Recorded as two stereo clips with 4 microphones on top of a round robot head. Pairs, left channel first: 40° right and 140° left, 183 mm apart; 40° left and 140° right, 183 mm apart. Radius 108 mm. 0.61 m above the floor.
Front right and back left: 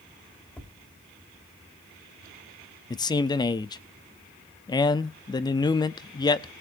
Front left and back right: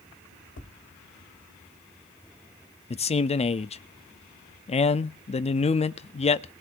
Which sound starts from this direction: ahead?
A man speaking, at 2.9 s.